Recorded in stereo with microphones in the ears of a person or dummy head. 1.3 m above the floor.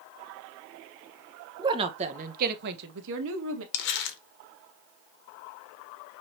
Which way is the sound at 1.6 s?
20° right (ahead or behind).